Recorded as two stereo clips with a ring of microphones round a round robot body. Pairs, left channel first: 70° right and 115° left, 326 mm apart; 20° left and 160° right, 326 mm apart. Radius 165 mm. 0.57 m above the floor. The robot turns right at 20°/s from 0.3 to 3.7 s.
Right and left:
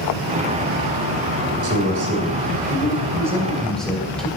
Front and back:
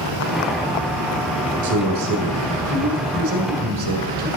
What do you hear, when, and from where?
1.6 s a man speaking: 160° left, 2 m; by 4.3 s 155° right, 2 m